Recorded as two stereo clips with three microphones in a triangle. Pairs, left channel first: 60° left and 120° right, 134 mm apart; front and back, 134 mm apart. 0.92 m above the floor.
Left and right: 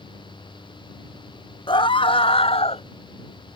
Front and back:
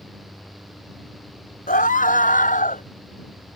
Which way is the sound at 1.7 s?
5° left.